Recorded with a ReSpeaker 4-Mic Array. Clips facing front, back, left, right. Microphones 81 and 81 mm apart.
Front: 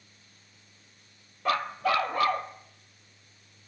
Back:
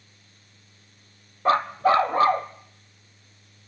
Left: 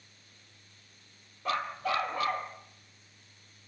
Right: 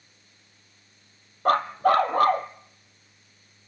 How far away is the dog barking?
About 1.3 m.